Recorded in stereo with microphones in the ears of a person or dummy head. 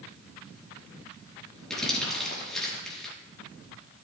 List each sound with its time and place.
1.7 s crumpling: centre (ahead or behind), 4.5 m